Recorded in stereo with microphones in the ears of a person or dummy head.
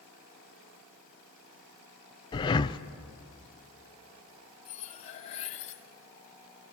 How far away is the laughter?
I don't hear laughter.